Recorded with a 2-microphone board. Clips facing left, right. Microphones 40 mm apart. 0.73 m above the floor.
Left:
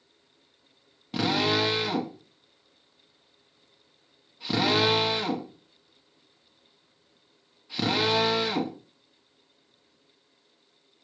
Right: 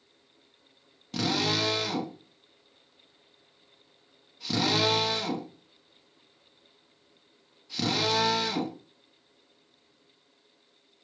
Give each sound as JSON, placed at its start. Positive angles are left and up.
{"t": 1.1, "sound": "a drill", "side_deg": 20, "distance_m": 1.3}